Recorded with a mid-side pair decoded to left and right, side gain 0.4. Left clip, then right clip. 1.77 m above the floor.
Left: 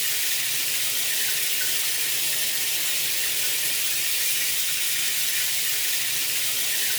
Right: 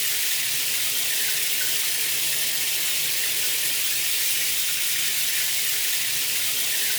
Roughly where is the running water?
Ahead.